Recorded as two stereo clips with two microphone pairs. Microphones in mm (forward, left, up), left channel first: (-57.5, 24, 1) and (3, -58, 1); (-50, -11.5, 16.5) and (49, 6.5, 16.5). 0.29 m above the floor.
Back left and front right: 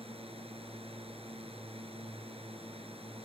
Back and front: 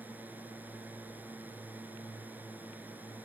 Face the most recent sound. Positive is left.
turn(degrees=-60)